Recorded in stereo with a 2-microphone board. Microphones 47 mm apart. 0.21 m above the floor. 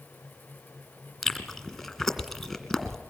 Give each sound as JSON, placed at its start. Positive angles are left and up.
{"t": 1.2, "sound": "chewing", "side_deg": 0, "distance_m": 2.0}